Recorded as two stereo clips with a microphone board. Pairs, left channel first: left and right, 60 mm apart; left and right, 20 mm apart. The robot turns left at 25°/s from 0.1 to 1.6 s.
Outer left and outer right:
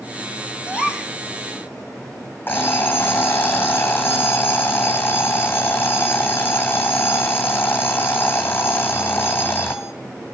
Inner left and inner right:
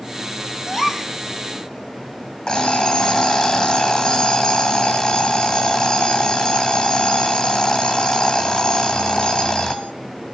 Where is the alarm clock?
30° left (ahead or behind), 2.5 m.